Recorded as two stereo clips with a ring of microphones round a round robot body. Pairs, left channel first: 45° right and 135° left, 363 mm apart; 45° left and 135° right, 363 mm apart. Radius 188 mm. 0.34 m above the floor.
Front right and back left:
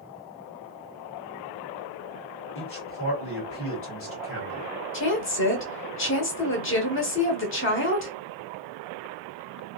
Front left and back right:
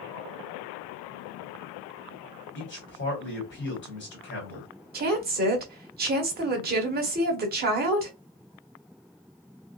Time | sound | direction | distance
2.5 | a man speaking | 5° right | 1.5 m
4.9 | a woman speaking | 85° right | 1.0 m